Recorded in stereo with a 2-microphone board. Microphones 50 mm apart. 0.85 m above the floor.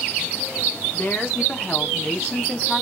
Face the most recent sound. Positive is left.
turn(degrees=0)  # may be behind; listen again after turning